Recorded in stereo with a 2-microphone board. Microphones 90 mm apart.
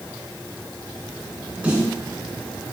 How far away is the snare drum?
About 2.5 m.